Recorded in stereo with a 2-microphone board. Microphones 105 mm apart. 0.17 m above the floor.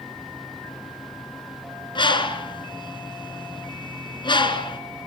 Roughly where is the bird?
Left.